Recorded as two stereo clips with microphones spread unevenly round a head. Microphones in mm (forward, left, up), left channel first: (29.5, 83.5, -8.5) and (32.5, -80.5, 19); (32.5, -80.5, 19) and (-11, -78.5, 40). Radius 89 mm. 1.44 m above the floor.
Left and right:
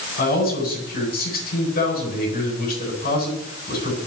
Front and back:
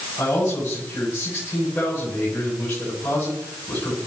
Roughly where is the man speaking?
Ahead left.